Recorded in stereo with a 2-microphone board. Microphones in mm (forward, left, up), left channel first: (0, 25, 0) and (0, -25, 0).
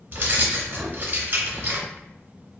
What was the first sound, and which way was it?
Keys jangling, 40° right (ahead or behind).